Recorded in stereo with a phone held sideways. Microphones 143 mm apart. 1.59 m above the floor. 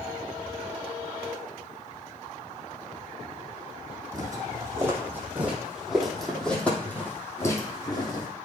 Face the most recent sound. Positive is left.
turn(degrees=30)  # may be behind; listen again after turning